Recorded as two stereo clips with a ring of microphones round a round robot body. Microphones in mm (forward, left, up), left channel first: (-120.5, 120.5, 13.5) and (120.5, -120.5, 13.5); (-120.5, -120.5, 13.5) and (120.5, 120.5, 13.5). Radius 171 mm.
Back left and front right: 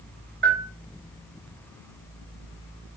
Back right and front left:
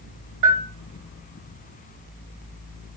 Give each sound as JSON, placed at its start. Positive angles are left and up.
{"t": 0.4, "sound": "a bell", "azimuth_deg": 15, "distance_m": 4.0}